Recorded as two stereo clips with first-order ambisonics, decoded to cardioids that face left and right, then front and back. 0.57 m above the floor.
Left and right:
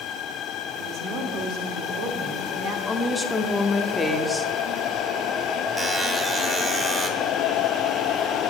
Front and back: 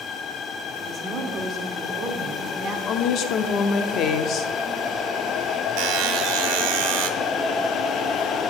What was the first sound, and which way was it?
A woman speaking, 120° right.